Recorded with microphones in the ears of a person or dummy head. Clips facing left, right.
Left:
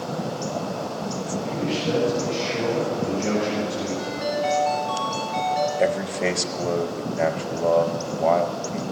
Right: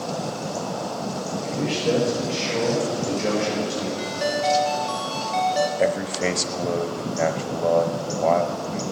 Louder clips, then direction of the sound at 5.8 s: Even; centre (ahead or behind).